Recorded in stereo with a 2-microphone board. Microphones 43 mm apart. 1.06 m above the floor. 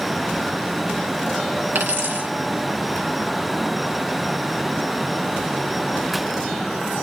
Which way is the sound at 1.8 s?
55° right (ahead or behind).